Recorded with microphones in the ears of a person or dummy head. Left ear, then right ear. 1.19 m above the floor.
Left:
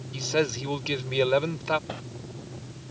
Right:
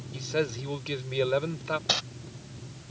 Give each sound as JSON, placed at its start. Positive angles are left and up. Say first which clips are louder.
{"t": 0.1, "sound": "a man speaking", "louder": "left 4 dB", "side_deg": 20}
{"t": 1.9, "sound": "crumpling", "louder": "right 12 dB", "side_deg": -50}